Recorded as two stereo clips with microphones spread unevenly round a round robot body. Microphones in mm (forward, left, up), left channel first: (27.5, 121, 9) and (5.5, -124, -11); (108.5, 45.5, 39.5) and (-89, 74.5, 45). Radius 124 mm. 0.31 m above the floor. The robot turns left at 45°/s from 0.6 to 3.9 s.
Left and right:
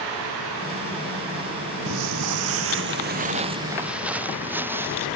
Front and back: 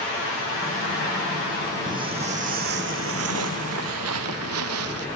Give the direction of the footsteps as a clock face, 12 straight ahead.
4 o'clock.